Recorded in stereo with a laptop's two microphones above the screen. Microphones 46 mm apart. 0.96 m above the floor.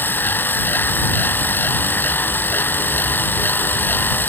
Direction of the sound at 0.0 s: 40° left (ahead or behind).